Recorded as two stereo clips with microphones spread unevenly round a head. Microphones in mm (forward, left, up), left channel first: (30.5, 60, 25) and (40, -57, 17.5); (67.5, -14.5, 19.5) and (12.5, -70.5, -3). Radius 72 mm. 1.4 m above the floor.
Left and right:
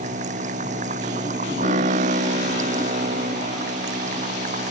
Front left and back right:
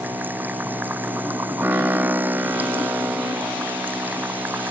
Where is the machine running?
65° right.